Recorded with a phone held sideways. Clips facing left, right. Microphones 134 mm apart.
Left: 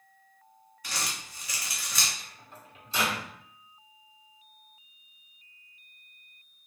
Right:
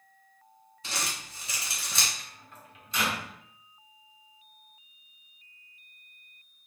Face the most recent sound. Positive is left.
turn(degrees=30)  # may be behind; listen again after turning